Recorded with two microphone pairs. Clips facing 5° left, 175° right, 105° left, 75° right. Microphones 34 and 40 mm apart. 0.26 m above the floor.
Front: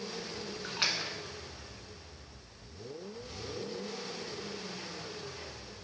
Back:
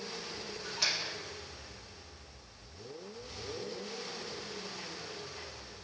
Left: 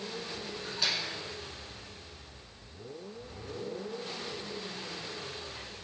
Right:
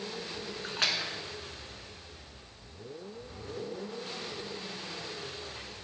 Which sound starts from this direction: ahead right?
A splash, at 0.6 s.